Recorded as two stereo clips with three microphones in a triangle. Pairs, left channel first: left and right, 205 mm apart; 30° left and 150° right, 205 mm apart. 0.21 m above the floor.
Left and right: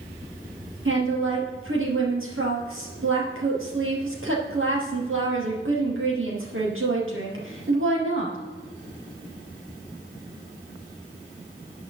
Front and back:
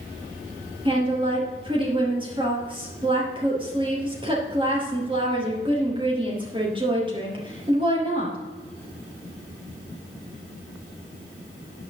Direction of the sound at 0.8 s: 85° right.